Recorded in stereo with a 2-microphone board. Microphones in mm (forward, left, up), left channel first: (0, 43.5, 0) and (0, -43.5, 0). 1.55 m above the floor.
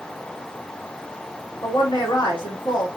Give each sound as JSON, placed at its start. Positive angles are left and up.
{"t": 1.6, "sound": "a woman speaking", "side_deg": 75, "distance_m": 3.5}